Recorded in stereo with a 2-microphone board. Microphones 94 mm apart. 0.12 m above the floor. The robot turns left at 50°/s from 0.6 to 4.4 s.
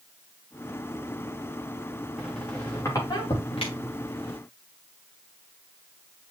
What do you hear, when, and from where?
2.2 s a squeak: centre (ahead or behind), 4 m; by 4.4 s 70° left (ahead or behind), 4 m